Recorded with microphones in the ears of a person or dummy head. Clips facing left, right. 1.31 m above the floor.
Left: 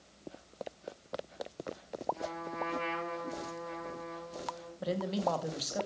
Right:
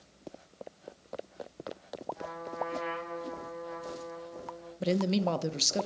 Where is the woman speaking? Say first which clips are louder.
Right 5 dB; 35° right (ahead or behind), 0.8 m.